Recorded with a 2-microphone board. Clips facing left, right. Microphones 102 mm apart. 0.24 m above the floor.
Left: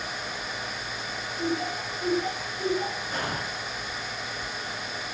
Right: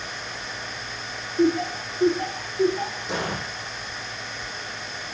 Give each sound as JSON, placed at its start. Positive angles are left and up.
{"t": 1.4, "sound": "laughter", "side_deg": -70, "distance_m": 5.5}
{"t": 3.1, "sound": "an explosion", "side_deg": -85, "distance_m": 10.0}